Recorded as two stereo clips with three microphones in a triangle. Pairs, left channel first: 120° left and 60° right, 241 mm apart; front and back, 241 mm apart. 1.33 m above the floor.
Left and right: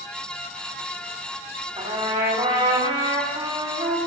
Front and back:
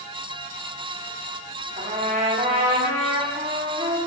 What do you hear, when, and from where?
1.8 s a trumpet: 125° right, 4.5 m